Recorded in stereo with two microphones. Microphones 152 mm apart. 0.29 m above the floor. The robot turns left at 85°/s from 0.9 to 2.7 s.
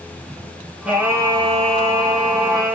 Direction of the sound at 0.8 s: 15° right.